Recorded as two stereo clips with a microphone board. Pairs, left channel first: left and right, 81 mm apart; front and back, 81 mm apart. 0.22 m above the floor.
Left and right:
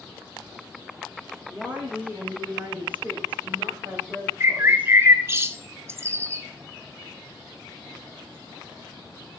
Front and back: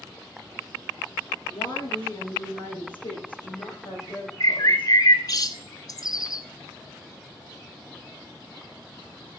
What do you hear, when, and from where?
1.5 s a woman speaking: 15° right, 10 m; by 4.9 s 20° right, 12 m
4.4 s a bird: 35° right, 1.3 m